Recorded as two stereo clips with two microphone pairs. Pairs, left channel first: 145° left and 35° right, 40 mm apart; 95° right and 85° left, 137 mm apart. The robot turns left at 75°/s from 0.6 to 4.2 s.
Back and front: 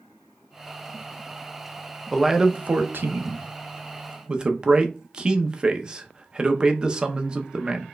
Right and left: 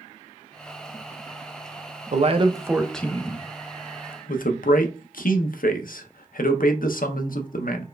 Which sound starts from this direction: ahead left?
A man speaking, at 2.1 s.